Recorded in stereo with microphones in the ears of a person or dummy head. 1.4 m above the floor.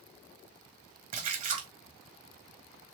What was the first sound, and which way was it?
A splash, 40° right (ahead or behind).